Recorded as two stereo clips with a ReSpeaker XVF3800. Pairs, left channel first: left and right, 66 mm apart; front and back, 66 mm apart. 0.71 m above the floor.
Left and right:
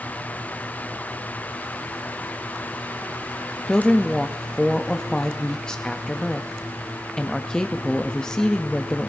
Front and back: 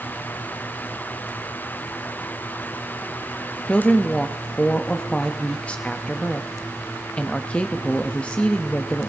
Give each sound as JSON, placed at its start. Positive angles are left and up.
{"t": 3.7, "sound": "a woman speaking", "azimuth_deg": 25, "distance_m": 0.5}